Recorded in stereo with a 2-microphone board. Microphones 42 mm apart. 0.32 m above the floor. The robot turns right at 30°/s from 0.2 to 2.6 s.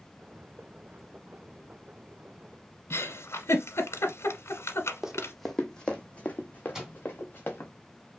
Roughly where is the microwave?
Centre.